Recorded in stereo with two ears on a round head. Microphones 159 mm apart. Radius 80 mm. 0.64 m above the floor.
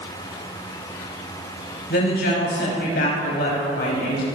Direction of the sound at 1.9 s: 70° left (ahead or behind).